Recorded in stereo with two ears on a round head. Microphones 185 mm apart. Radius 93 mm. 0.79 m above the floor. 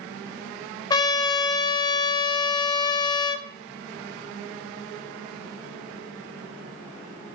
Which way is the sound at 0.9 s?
20° left (ahead or behind).